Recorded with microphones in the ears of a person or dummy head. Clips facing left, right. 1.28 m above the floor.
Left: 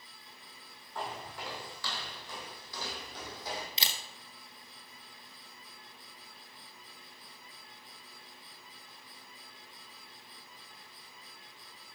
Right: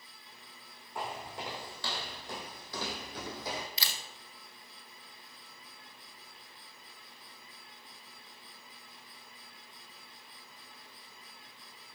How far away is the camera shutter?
About 1.3 m.